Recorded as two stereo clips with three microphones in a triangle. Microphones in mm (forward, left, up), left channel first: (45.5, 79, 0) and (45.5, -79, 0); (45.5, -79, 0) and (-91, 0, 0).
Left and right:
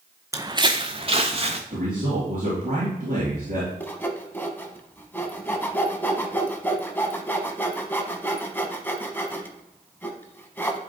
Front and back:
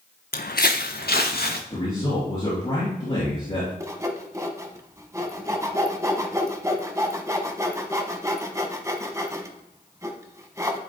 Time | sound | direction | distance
0.3 | footsteps | 20° right | 0.6 m
1.7 | a man speaking | 75° right | 3.5 m
3.8 | sawing | 140° left | 0.9 m